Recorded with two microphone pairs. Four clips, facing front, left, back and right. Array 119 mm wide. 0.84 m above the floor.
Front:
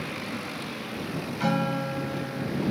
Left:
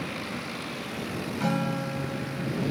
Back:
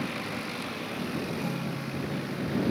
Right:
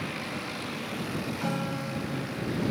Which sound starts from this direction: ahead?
A guitar, at 1.4 s.